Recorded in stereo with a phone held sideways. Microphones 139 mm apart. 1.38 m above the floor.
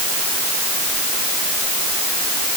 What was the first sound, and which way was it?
Only background noise.